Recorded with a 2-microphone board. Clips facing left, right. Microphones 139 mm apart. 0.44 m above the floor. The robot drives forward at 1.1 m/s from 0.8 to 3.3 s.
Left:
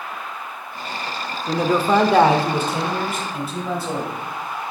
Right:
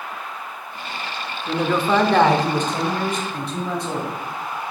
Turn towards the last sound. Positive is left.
turn(degrees=5)  # may be behind; listen again after turning